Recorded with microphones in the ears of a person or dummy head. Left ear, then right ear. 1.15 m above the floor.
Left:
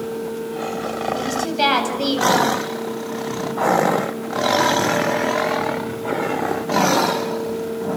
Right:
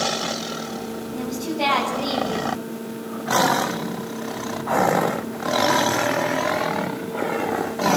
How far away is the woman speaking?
About 9 m.